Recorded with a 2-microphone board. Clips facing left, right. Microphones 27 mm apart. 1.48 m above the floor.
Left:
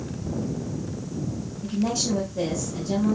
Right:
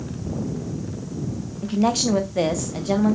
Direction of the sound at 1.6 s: 80° right.